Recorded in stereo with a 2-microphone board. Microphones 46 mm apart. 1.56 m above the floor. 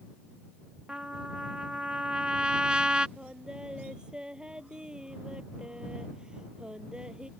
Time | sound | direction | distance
0.9 | a trumpet | 25° right (ahead or behind) | ?
3.2 | singing | 20° right (ahead or behind) | ?